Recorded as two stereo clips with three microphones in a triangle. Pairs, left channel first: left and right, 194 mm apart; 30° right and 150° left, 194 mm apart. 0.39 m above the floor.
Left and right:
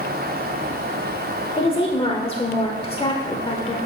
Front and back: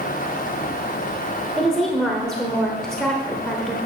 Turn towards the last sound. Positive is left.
turn(degrees=55)